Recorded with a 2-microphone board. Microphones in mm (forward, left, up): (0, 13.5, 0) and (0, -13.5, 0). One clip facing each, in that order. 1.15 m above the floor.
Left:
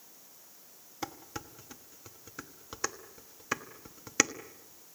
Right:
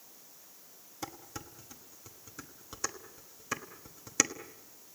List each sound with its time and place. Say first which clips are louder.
1.0 s dishes clattering: left 3 dB; 20° left (ahead or behind), 1.2 m